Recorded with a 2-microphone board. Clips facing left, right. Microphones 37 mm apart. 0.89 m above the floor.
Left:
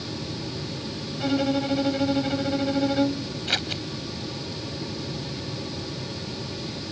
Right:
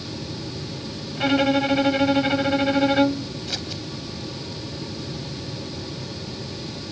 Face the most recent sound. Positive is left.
turn(degrees=45)  # may be behind; listen again after turning